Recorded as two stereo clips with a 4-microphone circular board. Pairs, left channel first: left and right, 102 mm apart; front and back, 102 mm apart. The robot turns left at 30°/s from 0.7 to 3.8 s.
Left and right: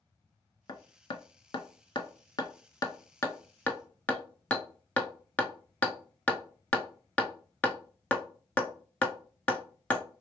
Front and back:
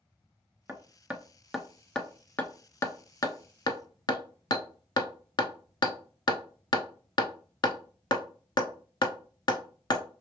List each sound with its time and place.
0.7 s hammering: 115° left, 0.5 m; by 10.1 s 20° left, 0.5 m